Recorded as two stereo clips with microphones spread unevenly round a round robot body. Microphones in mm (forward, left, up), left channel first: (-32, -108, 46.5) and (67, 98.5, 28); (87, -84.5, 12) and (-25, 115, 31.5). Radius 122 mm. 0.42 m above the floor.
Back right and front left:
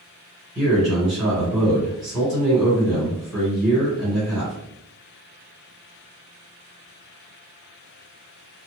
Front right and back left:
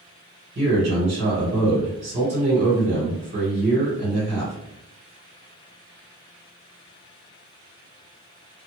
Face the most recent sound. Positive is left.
turn(degrees=150)